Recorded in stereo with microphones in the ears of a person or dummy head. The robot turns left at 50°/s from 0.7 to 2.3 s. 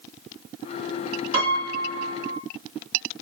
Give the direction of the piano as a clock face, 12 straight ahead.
3 o'clock.